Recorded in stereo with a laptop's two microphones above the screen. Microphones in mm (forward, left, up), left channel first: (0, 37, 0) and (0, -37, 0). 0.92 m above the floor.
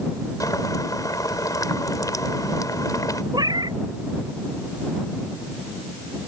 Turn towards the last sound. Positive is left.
turn(degrees=-55)  # may be behind; listen again after turning